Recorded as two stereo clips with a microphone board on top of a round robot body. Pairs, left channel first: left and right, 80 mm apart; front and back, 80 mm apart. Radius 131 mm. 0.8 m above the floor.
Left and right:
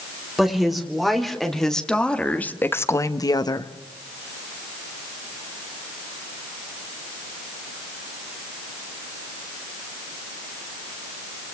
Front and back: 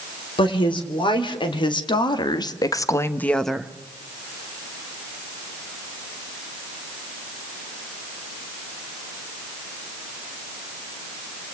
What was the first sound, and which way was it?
A woman speaking, 5° right.